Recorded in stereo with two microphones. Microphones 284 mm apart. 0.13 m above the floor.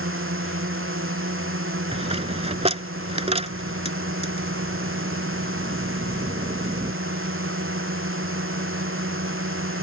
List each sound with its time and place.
0.0 s a drone: 45° right (ahead or behind)
1.9 s a dropped coin: 20° right (ahead or behind)